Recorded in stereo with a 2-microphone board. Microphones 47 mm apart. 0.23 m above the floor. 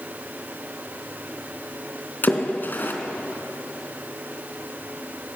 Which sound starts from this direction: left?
A splash, at 2.2 s.